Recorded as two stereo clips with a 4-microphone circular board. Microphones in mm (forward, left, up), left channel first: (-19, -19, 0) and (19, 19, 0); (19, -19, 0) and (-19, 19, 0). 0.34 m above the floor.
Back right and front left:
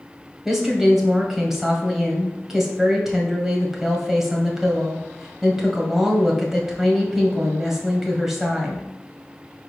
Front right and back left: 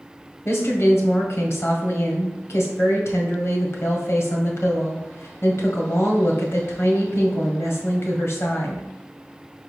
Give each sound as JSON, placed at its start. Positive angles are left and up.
{"t": 0.5, "sound": "a woman speaking", "azimuth_deg": -40, "distance_m": 1.6}